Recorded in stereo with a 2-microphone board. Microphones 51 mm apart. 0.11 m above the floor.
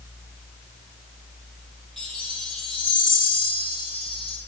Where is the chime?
5° left (ahead or behind), 2.5 m.